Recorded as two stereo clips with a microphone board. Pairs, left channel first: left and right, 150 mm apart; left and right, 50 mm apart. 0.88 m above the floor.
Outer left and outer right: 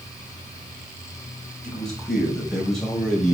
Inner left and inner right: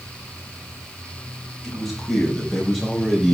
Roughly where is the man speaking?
Centre.